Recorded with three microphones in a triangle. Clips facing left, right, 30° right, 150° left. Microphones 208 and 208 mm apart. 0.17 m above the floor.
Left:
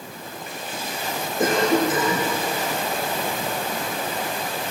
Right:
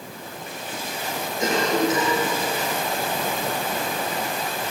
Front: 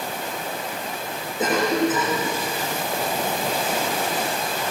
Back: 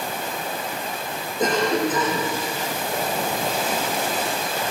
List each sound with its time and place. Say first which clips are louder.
1.4 s a cough: left 2 dB, even; 55° left, 9 m